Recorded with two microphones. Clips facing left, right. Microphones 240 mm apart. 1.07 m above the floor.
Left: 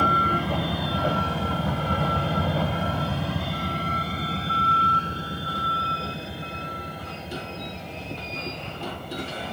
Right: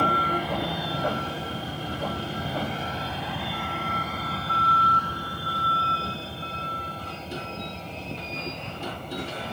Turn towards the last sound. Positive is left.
turn(degrees=5)  # may be behind; listen again after turning